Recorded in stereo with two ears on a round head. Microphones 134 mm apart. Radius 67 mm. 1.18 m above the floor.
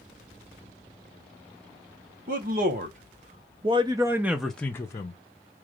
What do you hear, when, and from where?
2.3 s a man speaking: 60° right (ahead or behind), 1.4 m; by 5.2 s 30° left (ahead or behind), 0.8 m